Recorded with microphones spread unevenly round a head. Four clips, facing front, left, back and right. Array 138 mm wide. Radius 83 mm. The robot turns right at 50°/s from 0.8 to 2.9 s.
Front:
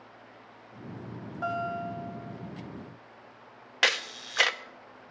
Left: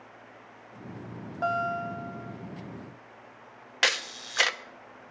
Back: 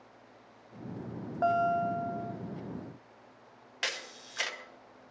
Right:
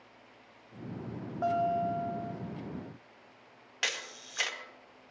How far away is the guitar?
About 1.3 m.